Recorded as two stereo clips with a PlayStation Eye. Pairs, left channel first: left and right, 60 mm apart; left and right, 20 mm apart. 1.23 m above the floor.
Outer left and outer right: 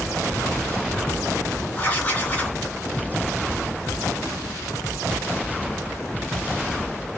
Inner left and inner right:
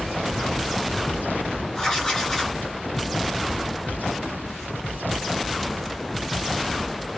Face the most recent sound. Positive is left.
turn(degrees=25)  # may be behind; listen again after turning